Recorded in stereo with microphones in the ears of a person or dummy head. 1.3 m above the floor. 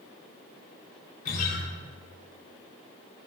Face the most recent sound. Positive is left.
turn(degrees=50)  # may be behind; listen again after turning